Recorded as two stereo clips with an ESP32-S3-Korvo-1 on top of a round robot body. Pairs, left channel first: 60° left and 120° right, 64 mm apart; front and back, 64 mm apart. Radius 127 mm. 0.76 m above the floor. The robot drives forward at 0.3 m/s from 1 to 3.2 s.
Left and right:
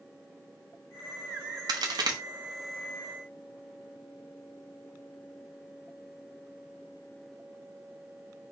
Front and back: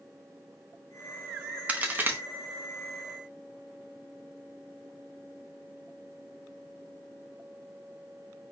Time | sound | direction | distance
1.7 | a crack | 110° right | 0.7 m